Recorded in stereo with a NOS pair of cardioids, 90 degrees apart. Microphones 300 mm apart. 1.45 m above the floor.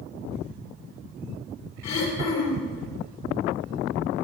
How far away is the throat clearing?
About 3 m.